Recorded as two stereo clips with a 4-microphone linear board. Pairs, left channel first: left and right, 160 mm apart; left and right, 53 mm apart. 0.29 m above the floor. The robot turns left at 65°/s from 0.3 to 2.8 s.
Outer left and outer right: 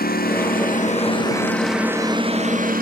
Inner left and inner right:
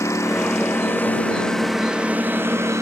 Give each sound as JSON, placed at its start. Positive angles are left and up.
{"t": 0.0, "sound": "a lawn mower", "azimuth_deg": 90}